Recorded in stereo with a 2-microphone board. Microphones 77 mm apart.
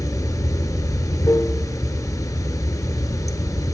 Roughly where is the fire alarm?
No fire alarm in this recording.